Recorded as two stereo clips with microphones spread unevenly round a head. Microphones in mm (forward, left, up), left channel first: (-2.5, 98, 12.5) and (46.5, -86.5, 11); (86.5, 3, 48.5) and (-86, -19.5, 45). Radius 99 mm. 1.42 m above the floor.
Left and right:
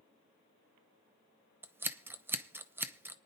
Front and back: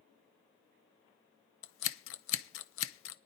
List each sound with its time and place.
1.6 s scissors: 5° left, 0.7 m